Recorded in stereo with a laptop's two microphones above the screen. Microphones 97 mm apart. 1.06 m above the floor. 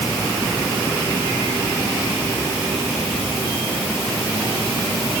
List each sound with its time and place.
Only background noise.